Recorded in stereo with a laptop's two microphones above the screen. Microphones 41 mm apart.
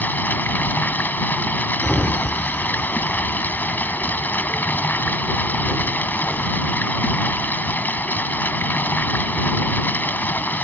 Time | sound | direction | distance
0.0 | running water | 55° left (ahead or behind) | ?
1.8 | a sliding door | 20° left (ahead or behind) | ?